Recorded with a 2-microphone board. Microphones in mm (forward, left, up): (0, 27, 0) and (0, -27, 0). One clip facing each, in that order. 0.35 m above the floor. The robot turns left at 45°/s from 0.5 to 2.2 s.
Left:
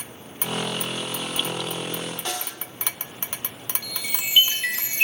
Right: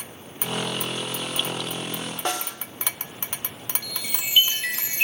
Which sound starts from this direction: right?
A snare drum, at 2.2 s.